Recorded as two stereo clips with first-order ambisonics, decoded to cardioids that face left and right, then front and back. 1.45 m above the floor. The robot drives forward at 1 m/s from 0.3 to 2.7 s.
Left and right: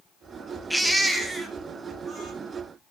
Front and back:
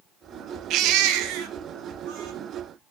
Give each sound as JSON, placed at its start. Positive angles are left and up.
{"t": 0.7, "sound": "a baby crying", "azimuth_deg": 180, "distance_m": 0.6}